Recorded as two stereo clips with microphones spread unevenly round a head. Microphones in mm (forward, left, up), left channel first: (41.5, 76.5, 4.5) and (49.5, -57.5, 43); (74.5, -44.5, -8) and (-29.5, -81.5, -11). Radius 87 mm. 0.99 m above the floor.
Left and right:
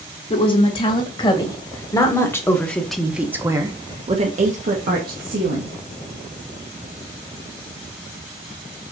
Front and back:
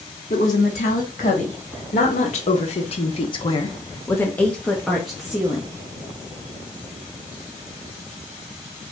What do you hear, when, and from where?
0.3 s a woman speaking: 55° left, 2.5 m; by 5.7 s 85° right, 1.7 m